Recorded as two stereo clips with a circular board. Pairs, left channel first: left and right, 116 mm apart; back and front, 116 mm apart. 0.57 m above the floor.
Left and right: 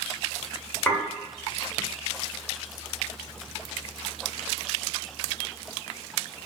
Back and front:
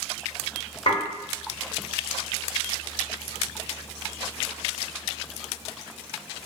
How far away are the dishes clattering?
About 1.5 m.